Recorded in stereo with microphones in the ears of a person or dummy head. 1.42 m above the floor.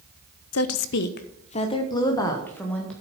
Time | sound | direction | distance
0.5 | a woman speaking | 80° left | 0.9 m